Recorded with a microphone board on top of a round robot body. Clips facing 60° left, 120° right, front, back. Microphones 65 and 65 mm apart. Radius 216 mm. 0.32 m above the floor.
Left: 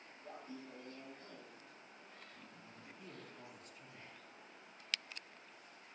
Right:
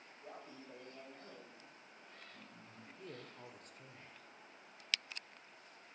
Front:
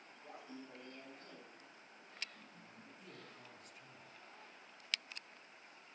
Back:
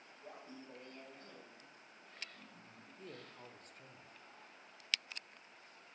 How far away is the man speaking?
About 1.6 m.